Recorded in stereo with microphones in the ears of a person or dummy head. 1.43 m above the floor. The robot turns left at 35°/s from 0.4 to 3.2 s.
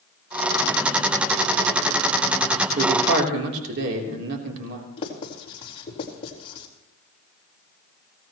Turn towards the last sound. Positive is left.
turn(degrees=35)  # may be behind; listen again after turning